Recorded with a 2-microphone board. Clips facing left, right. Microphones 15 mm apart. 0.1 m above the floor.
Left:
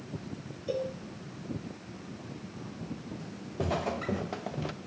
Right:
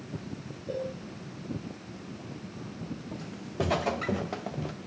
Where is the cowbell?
60° left (ahead or behind), 1.5 m.